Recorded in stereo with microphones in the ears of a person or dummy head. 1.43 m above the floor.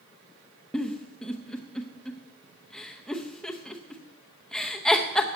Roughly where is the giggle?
Centre.